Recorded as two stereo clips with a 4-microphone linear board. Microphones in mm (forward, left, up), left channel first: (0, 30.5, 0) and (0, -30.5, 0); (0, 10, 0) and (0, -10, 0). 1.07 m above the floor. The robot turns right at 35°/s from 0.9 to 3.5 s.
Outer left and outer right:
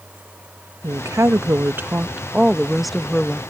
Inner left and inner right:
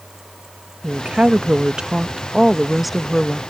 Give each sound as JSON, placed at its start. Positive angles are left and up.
{"t": 0.8, "sound": "a woman speaking", "azimuth_deg": -70}